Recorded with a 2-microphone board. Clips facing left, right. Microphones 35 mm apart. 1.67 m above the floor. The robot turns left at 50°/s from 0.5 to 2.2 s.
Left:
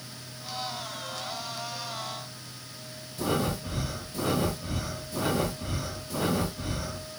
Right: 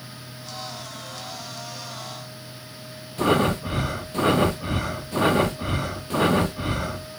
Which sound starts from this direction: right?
Breathing, at 3.2 s.